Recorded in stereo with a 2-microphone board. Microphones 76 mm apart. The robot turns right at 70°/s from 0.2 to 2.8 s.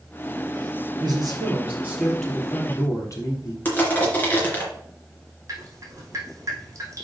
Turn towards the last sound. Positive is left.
turn(degrees=-45)  # may be behind; listen again after turning